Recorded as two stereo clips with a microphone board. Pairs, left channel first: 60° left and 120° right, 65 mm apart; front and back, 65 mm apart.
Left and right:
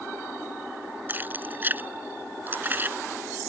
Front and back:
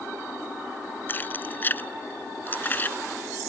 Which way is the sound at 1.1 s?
60° right.